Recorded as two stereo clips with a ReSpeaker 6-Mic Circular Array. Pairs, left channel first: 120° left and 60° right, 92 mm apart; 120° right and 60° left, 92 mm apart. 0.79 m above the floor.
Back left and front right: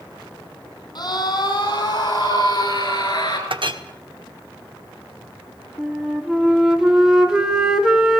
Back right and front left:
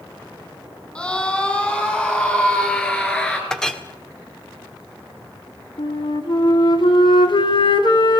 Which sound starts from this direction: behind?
A scream, at 0.9 s.